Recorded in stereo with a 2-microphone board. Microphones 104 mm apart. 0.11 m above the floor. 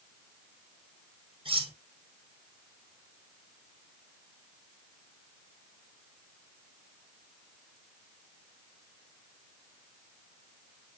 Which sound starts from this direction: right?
Cutlery clinking, at 1.4 s.